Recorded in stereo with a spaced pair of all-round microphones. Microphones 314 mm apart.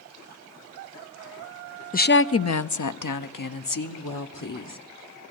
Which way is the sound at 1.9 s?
25° left (ahead or behind).